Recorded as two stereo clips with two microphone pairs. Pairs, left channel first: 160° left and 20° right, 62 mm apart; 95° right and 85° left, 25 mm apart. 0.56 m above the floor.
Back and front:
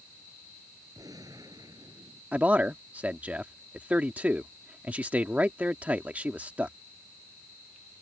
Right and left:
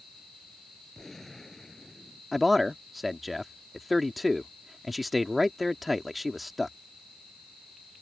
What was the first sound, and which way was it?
A gunshot, 15° right.